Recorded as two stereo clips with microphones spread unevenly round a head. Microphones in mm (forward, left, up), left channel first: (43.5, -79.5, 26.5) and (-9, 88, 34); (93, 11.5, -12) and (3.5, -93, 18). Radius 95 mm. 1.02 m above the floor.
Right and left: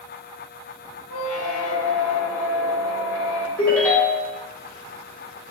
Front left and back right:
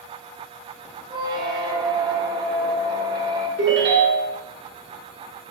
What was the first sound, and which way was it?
A squeak, 85° right.